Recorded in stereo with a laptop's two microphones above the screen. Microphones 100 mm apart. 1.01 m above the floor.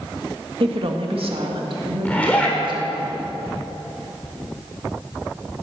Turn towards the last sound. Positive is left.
turn(degrees=15)  # may be behind; listen again after turning